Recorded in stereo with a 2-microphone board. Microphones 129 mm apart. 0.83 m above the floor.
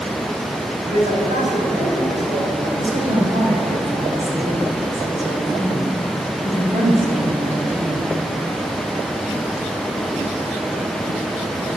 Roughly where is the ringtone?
No ringtone in this recording.